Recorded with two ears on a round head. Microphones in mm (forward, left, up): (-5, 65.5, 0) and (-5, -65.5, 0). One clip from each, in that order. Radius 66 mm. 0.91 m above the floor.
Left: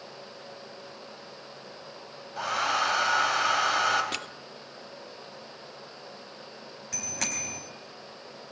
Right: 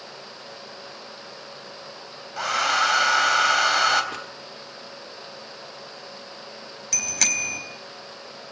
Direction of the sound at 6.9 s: 70° right (ahead or behind).